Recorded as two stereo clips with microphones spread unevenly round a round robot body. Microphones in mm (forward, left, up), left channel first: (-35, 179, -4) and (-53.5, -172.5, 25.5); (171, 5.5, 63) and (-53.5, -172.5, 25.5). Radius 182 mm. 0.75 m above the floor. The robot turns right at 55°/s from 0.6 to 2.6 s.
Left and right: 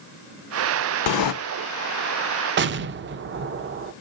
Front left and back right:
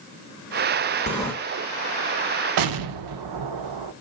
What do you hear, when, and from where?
1.1 s a sliding door: 105° left, 0.7 m; by 1.3 s 120° left, 0.7 m
2.6 s an explosion: 150° right, 0.5 m